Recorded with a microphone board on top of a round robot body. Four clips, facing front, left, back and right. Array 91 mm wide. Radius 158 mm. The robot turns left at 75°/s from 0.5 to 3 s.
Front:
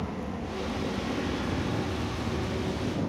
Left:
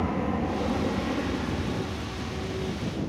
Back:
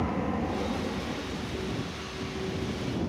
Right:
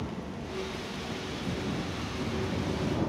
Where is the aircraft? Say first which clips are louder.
Left 10 dB, back 5 dB; 125° left; by 3.1 s 75° right.